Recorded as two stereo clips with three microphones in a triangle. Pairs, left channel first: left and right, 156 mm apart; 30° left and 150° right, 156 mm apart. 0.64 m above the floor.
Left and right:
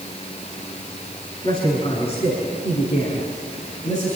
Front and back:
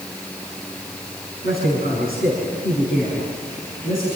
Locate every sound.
1.4 s a man speaking: 35° left, 5 m; by 4.2 s 50° left, 6.5 m